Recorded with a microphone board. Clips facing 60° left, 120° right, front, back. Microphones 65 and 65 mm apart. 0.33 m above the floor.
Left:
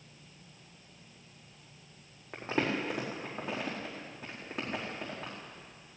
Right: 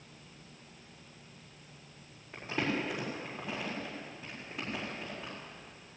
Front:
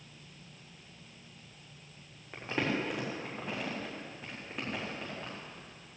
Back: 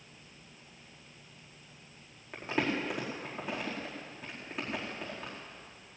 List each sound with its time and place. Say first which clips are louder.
2.3 s crumpling: left 2 dB, back 1 dB; 95° left, 4.5 m